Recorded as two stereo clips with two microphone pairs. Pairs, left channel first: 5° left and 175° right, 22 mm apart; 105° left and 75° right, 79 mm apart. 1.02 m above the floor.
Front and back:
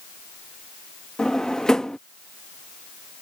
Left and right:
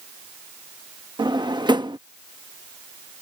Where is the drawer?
60° right.